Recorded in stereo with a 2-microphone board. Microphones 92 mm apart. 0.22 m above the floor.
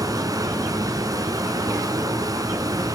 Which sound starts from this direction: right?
Running water, at 0.0 s.